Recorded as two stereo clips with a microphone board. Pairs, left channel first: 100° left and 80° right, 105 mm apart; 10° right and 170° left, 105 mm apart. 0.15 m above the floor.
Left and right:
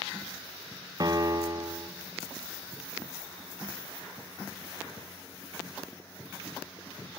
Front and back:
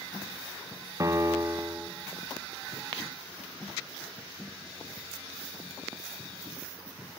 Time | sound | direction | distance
1.0 | a piano | 130° right | 2.5 m